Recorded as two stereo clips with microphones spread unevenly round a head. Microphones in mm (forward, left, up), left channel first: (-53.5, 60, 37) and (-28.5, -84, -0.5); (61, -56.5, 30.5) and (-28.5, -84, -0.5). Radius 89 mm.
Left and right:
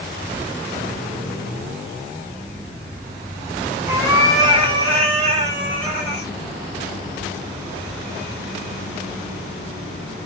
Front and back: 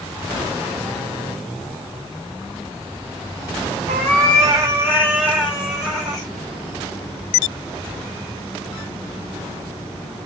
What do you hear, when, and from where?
3.9 s a cat meowing: 170° right, 1.1 m; by 6.3 s 50° right, 1.4 m